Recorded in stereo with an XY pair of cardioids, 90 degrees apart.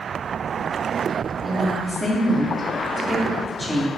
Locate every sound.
1.4 s a woman speaking: 10° right, 2.5 m